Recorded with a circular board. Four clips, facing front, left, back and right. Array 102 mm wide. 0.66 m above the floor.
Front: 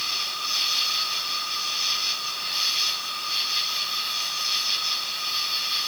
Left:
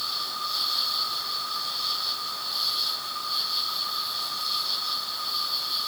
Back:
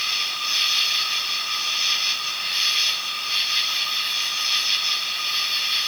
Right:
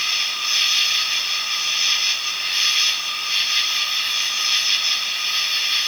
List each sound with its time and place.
0.0 s an insect: 110° right